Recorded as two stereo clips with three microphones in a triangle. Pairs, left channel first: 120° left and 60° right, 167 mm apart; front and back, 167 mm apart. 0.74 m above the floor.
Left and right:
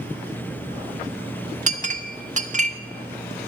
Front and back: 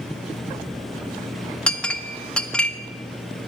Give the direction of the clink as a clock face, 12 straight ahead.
3 o'clock.